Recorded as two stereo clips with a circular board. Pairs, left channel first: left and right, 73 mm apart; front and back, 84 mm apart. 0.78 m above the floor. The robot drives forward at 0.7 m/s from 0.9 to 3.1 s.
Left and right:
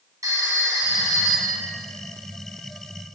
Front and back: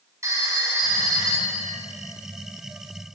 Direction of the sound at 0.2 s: 125° right.